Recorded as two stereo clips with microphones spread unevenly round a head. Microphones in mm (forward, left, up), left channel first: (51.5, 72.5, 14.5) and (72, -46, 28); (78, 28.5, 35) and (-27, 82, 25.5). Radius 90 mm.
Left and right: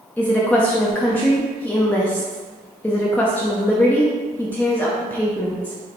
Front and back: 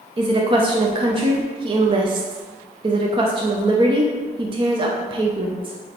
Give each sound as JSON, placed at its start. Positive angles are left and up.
{"t": 0.2, "sound": "a woman speaking", "azimuth_deg": 165, "distance_m": 0.7}